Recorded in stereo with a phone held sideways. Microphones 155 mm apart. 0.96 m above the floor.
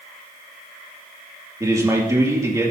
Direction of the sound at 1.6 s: 20° right (ahead or behind).